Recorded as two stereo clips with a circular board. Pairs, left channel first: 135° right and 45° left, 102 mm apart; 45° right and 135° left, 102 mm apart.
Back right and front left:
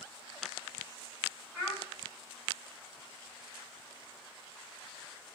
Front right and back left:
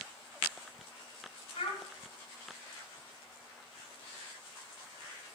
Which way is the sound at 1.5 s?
75° right.